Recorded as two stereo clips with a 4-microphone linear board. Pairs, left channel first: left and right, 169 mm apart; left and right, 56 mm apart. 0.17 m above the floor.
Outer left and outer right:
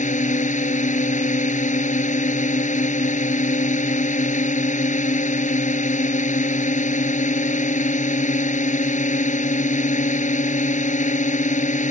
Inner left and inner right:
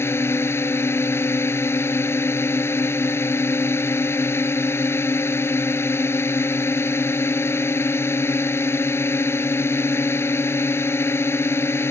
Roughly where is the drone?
Left.